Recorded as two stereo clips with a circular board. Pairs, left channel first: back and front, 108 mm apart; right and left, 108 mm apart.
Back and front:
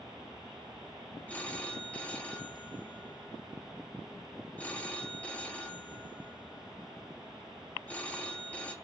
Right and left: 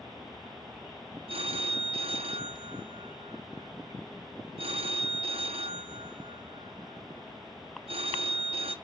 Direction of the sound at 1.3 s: 105° left.